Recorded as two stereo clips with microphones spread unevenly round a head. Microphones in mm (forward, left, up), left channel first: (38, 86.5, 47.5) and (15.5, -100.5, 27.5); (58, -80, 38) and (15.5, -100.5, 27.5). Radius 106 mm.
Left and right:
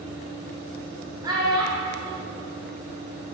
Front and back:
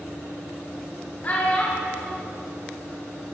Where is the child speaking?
25° right, 1.2 m.